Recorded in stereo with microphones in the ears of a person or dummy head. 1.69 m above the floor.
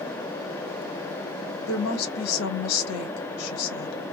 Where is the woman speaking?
85° left, 1.3 m.